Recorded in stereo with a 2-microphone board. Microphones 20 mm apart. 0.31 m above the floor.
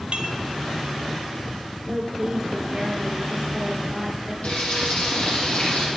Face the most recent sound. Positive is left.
turn(degrees=85)